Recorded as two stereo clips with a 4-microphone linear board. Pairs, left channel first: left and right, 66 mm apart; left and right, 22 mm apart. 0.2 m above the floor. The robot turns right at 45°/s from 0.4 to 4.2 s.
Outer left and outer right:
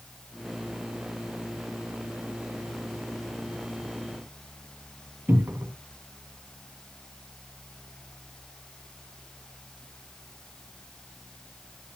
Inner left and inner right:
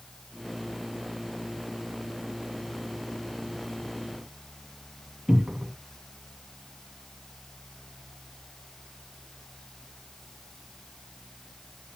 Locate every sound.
5.3 s a cupboard door: 35° right (ahead or behind), 1.6 m